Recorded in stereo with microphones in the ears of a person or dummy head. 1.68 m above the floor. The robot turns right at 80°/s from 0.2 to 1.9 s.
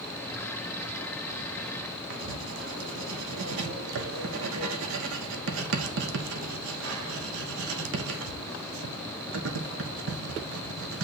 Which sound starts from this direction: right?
Writing, at 2.1 s.